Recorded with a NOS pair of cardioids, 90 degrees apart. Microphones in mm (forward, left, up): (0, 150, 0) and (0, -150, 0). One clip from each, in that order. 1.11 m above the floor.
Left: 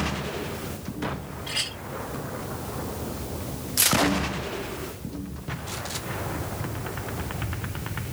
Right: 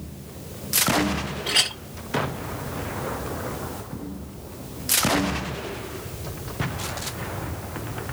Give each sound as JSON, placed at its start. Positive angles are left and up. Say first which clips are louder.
{"t": 1.5, "sound": "a clink", "louder": "right 7 dB", "azimuth_deg": -65, "distance_m": 0.9}